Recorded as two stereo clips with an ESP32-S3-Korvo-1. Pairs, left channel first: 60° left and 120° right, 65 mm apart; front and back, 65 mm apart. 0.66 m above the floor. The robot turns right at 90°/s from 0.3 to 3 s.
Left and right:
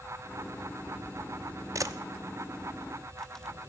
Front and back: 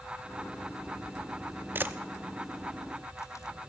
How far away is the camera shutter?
About 0.6 m.